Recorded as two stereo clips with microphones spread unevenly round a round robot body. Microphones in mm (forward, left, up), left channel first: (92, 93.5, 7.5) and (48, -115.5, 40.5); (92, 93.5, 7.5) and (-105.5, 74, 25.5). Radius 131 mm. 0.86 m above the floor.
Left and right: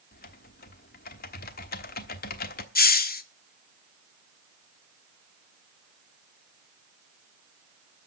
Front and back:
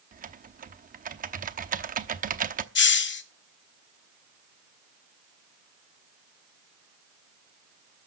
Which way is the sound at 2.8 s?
35° left.